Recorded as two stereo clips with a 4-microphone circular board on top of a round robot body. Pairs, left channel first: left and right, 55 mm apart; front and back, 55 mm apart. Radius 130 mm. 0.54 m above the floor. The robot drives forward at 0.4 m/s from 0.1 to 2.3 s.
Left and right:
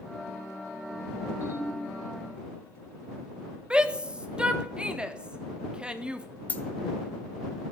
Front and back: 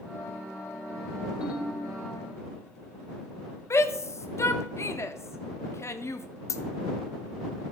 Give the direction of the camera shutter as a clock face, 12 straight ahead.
No camera shutter in this recording.